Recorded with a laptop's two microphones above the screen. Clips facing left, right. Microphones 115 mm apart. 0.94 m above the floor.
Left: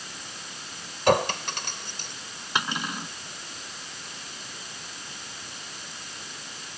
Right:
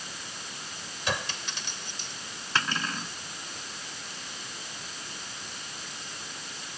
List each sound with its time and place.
1.1 s a clink: 55° left (ahead or behind)
2.5 s cutlery clinking: 15° left (ahead or behind)